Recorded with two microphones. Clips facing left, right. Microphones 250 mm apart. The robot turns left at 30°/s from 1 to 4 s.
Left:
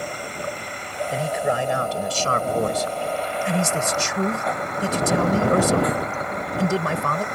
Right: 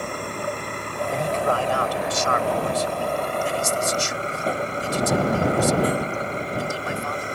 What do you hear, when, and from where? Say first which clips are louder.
0.0 s a vehicle: right 2 dB; 60° right; by 7.3 s 150° right
1.1 s a man speaking: even; 175° left; by 7.2 s 90° left